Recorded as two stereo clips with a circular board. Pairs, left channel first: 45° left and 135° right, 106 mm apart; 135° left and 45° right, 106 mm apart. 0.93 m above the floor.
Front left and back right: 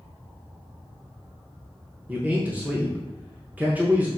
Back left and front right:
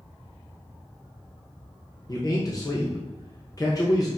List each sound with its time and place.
2.1 s a man speaking: 160° left, 0.6 m